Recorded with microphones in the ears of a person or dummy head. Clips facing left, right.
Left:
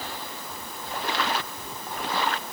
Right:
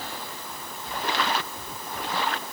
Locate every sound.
Only background noise.